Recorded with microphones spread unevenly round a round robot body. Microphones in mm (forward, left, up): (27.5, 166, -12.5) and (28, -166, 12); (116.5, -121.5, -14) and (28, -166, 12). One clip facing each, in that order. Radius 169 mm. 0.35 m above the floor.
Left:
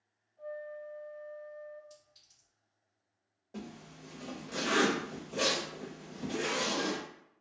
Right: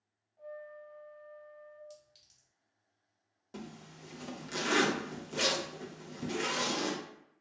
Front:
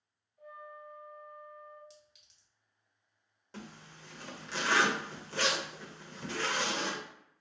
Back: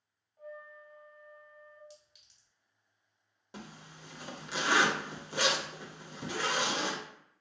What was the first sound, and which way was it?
A flute, 145° right.